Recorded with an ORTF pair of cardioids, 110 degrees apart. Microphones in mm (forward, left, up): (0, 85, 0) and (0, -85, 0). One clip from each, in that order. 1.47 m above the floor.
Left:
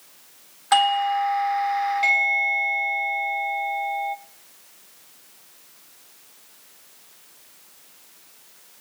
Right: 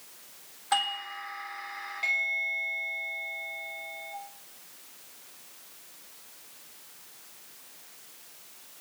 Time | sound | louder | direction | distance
0.7 | a doorbell | left 11 dB | 40° left | 0.9 m